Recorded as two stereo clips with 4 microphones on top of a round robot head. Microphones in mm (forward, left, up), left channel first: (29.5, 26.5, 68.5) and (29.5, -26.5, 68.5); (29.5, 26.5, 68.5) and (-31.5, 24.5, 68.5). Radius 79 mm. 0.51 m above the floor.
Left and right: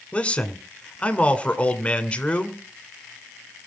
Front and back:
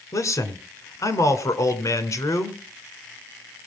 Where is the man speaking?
20° left, 2 m.